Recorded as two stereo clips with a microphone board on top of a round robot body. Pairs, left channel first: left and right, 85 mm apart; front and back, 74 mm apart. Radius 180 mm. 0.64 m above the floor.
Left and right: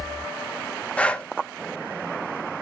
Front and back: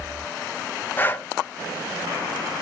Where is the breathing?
30° left, 0.7 m.